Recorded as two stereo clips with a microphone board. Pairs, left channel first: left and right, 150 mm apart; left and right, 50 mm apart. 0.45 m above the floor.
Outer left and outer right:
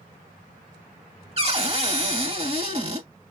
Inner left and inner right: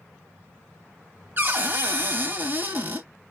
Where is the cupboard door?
40° right (ahead or behind), 0.9 m.